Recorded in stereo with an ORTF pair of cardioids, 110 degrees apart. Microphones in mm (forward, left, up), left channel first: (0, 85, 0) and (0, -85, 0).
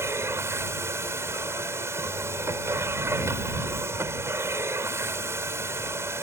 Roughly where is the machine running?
Ahead.